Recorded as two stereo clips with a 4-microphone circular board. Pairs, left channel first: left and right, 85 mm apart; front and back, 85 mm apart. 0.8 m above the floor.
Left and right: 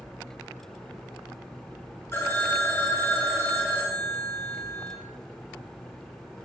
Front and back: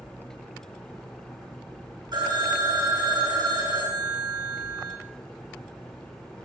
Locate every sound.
2.1 s a phone ringing: 150° left, 3.5 m